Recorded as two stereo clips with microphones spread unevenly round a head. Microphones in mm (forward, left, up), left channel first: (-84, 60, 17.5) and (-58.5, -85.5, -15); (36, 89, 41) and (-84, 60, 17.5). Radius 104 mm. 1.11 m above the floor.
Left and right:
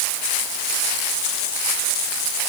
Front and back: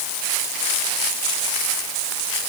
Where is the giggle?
No giggle in this recording.